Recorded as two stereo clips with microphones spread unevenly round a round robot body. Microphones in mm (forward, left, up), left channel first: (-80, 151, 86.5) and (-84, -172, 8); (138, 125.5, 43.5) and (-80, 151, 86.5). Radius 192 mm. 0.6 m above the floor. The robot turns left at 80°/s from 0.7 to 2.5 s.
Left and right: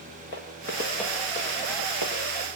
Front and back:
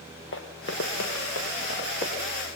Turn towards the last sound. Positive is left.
turn(degrees=-95)